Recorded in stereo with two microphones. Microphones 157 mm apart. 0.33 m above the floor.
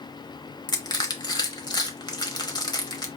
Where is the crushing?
25° left (ahead or behind), 0.8 m.